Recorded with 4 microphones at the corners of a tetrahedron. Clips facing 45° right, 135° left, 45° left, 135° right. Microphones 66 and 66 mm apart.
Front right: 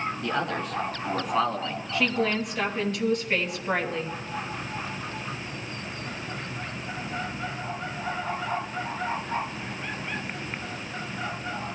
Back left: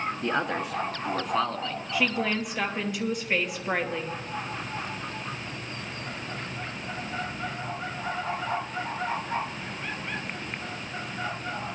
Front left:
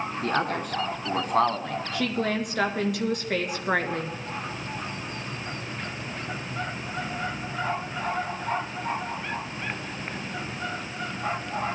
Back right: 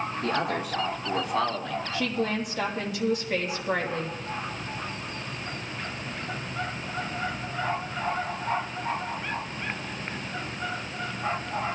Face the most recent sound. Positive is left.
turn(degrees=55)